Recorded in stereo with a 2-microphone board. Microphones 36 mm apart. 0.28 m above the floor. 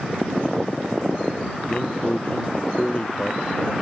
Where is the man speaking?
35° left (ahead or behind).